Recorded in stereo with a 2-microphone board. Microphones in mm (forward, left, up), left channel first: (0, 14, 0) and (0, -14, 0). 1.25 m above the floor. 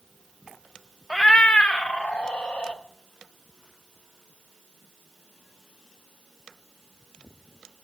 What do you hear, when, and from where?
1.1 s a cat meowing: 40° left (ahead or behind), 0.5 m; by 2.8 s 55° left (ahead or behind), 1.3 m